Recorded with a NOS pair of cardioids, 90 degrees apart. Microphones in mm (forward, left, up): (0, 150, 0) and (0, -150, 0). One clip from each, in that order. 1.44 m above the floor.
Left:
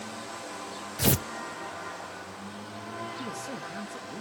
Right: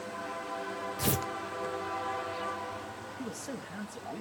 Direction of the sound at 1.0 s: 30° left.